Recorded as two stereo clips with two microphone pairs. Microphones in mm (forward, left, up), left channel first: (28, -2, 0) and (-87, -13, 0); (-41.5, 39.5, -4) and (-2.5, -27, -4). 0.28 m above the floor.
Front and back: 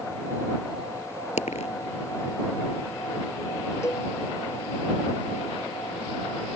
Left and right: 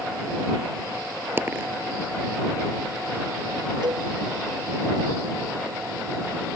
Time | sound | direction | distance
1.4 | a dropped coin | 5° left | ?
3.8 | a cowbell | 60° right | ?